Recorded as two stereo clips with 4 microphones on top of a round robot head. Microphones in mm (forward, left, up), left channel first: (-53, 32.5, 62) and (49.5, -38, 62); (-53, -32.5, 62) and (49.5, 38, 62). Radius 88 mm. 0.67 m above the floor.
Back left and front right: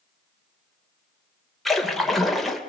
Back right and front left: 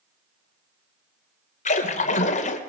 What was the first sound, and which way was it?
A splash, 125° right.